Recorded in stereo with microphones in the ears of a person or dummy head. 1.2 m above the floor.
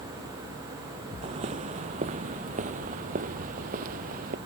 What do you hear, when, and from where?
1.2 s footsteps: 35° right (ahead or behind); by 4.4 s 50° right (ahead or behind)